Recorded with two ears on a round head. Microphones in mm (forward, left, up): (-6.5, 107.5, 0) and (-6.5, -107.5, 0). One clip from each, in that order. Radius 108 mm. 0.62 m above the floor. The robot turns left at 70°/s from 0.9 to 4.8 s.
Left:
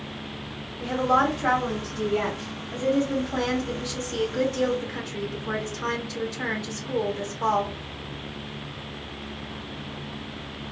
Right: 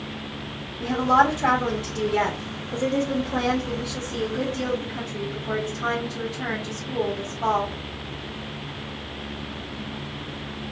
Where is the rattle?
No rattle in this recording.